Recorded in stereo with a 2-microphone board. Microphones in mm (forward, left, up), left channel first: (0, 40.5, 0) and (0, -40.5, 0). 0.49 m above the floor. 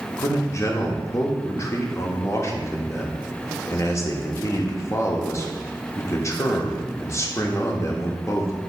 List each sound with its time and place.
0.2 s a man speaking: 35° left (ahead or behind), 0.9 m